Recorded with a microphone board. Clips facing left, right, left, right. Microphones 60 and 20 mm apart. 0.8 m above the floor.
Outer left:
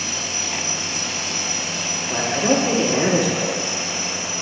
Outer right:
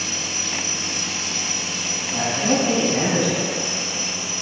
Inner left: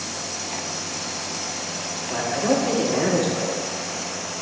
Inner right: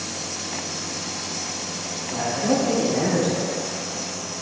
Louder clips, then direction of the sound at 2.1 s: Outer left 2 dB, inner left 1 dB; 60° left (ahead or behind).